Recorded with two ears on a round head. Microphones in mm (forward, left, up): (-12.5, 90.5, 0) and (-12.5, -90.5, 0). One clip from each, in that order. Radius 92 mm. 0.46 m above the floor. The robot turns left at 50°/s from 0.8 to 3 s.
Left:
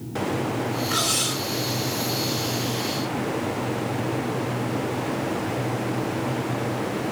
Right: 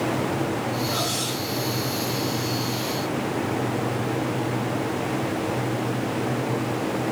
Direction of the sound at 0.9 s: 55° left (ahead or behind).